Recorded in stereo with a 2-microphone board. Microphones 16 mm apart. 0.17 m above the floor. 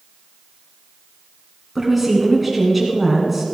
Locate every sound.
1.8 s a woman speaking: 10° right (ahead or behind), 1.9 m